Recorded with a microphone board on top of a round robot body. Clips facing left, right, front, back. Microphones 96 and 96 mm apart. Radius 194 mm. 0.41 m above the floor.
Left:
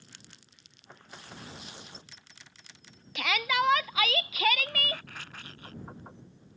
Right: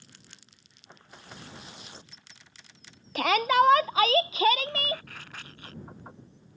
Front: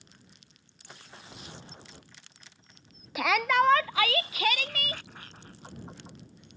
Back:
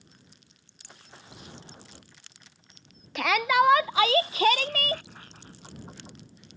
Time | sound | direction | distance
3.1 | a shout | 80° right | ?